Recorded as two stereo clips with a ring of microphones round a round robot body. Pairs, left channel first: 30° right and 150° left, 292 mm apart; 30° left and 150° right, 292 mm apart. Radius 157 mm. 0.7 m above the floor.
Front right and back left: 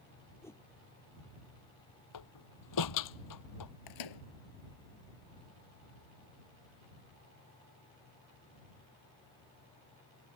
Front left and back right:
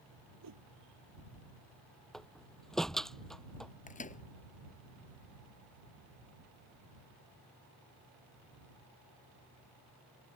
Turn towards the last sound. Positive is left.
turn(degrees=-35)